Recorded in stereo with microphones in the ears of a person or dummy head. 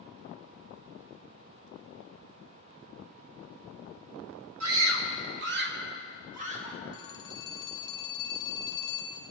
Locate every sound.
4.6 s a scream: 80° right, 2 m; by 6.8 s 35° right (ahead or behind), 2.5 m
6.9 s a phone ringing: 20° left (ahead or behind), 2 m